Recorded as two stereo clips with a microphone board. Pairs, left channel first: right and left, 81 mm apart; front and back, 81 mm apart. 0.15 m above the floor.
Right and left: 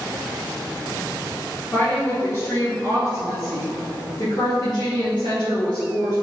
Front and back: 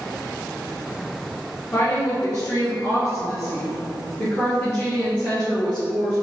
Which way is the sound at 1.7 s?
50° right.